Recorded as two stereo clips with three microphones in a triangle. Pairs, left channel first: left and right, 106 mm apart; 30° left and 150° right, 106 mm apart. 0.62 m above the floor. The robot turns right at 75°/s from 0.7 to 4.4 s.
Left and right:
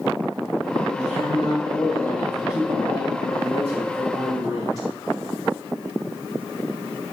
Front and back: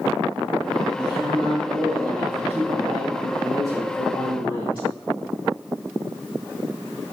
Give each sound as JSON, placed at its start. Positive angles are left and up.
{"t": 0.9, "sound": "a man speaking", "azimuth_deg": 95, "distance_m": 3.0}